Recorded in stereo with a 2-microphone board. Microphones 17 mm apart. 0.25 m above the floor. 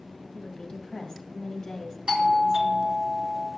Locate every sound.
0.3 s a woman speaking: 30° left (ahead or behind), 1.7 m
2.1 s a doorbell: 50° right (ahead or behind), 2 m